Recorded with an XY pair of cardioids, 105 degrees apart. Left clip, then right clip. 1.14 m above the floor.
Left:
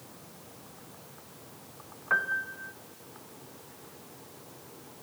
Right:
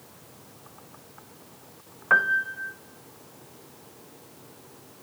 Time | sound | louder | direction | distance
2.1 | a piano | right 7 dB | 45° right | 0.6 m